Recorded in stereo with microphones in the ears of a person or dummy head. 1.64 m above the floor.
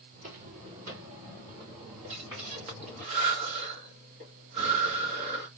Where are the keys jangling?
I don't hear keys jangling.